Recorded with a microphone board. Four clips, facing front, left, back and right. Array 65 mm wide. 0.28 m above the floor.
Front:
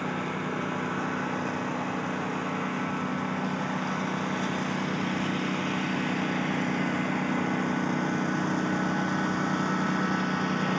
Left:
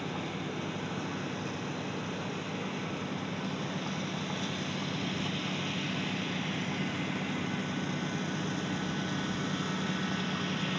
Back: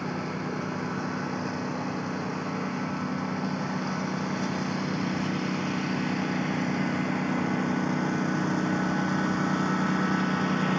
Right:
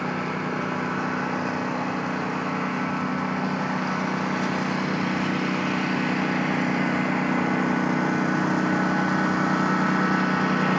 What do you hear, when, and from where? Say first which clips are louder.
0.0 s a lawn mower: right 9 dB, front 1 dB; 75° right; by 10.8 s 90° right